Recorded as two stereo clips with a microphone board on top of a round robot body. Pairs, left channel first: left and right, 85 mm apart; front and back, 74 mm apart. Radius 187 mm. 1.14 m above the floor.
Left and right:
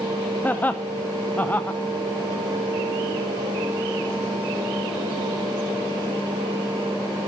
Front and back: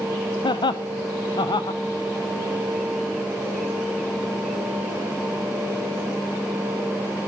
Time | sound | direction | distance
0.4 | laughter | 15° left | 0.6 m